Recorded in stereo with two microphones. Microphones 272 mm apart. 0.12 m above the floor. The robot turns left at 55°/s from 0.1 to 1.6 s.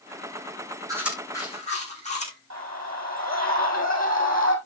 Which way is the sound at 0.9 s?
15° right (ahead or behind).